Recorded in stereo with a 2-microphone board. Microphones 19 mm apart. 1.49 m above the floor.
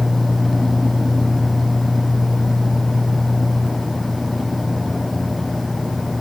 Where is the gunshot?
I don't hear a gunshot.